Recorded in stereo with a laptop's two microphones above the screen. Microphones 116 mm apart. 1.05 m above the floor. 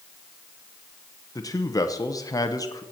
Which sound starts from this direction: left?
A man speaking, at 1.4 s.